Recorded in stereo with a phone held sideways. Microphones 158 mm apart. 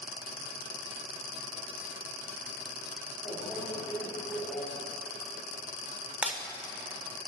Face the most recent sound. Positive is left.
turn(degrees=-5)  # may be behind; listen again after turning